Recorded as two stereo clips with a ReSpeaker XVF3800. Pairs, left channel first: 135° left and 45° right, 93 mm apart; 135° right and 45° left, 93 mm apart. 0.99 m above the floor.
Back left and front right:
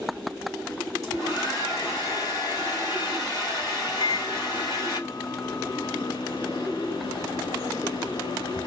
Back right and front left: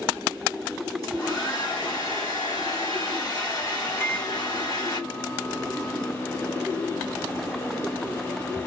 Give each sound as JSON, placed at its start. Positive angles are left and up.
{"t": 1.0, "sound": "a hair dryer", "azimuth_deg": -175, "distance_m": 4.0}
{"t": 4.0, "sound": "a microwave", "azimuth_deg": 160, "distance_m": 0.8}